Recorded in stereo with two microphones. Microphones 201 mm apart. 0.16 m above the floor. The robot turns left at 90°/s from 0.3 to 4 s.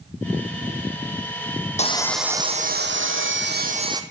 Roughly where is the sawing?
Ahead left.